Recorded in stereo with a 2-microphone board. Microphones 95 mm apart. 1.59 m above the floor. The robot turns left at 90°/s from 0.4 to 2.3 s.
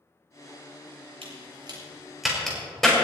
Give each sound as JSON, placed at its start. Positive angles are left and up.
{"t": 1.2, "sound": "a crack", "side_deg": -75, "distance_m": 6.5}